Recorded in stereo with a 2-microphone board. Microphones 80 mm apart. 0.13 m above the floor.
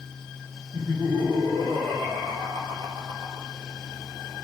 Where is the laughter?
70° right (ahead or behind), 6 m; by 3.5 s 60° right (ahead or behind), 3.5 m.